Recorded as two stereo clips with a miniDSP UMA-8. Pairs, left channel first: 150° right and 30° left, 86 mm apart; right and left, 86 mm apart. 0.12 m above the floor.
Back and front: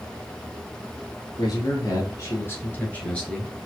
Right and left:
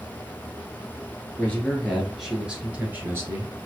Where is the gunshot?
I don't hear a gunshot.